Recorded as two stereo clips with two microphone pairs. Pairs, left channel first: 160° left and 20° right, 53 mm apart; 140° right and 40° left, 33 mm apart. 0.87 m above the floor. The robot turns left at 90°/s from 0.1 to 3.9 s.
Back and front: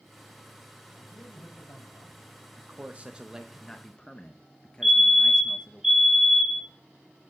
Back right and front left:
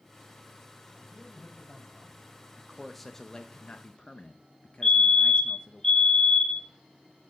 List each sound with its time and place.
0.9 s a man speaking: 125° right, 5.5 m; by 2.2 s 120° left, 5.5 m
2.6 s a man speaking: 20° right, 0.7 m; by 5.8 s 140° right, 0.7 m
4.8 s a fire alarm: 80° right, 1.4 m